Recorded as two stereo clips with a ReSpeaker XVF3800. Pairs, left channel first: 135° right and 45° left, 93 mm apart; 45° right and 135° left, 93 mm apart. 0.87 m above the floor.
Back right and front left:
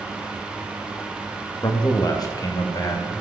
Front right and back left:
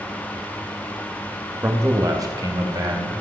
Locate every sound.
1.6 s a man speaking: 165° right, 0.9 m; by 3.1 s 175° left, 1.5 m